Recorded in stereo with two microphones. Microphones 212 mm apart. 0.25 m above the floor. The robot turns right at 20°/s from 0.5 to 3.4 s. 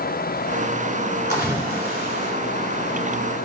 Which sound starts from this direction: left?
A splash, at 1.3 s.